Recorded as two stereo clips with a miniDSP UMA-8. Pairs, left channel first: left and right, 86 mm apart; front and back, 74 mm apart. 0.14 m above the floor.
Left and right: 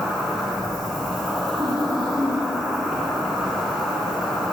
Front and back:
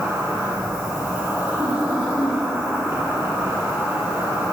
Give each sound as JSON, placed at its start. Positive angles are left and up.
{"t": 0.0, "sound": "an insect", "azimuth_deg": 180, "distance_m": 2.0}
{"t": 1.6, "sound": "laughter", "azimuth_deg": -105, "distance_m": 1.2}